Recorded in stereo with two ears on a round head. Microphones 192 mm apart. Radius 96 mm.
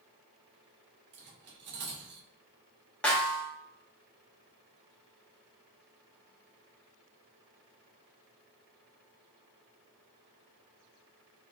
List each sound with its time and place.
1.1 s cutlery clinking: 50° right (ahead or behind), 0.9 m
3.0 s a snare drum: 5° left (ahead or behind), 0.9 m